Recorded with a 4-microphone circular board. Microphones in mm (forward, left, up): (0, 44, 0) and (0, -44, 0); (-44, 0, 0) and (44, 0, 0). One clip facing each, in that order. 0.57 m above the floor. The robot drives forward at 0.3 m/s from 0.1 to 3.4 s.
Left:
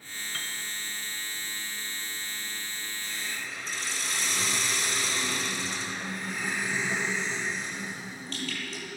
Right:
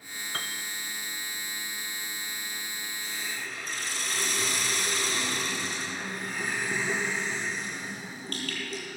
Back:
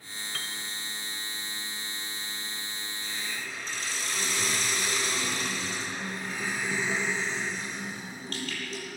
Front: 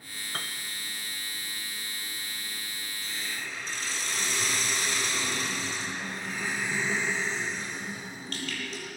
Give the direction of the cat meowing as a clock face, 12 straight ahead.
No cat meowing in this recording.